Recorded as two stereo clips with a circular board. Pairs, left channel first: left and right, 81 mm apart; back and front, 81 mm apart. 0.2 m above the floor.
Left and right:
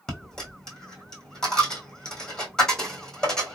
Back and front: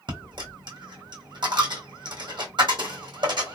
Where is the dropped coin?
10° left, 1.5 m.